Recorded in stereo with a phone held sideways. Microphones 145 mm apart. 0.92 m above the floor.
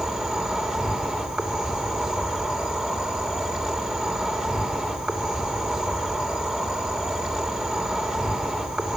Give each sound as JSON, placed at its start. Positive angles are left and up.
{"t": 0.0, "sound": "an insect", "side_deg": -5, "distance_m": 3.0}